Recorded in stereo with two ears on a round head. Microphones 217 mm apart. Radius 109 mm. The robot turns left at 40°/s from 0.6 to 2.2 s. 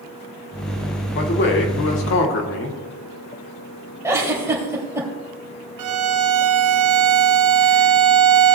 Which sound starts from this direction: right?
A violin, at 5.8 s.